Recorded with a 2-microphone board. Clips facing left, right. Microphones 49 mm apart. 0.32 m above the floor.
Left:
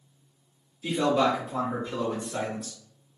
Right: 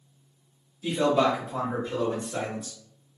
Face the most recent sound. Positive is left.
turn(degrees=-25)  # may be behind; listen again after turning